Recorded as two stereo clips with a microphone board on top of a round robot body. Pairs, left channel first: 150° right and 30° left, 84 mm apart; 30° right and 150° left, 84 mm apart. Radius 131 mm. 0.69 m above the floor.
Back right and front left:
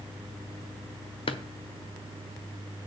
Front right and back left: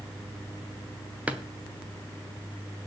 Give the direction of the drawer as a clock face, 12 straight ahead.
4 o'clock.